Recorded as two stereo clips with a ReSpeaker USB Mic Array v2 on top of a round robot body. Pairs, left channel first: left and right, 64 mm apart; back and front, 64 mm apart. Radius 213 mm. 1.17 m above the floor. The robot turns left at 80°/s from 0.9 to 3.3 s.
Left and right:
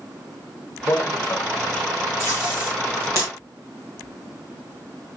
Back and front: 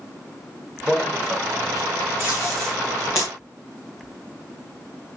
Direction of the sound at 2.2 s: 60° right.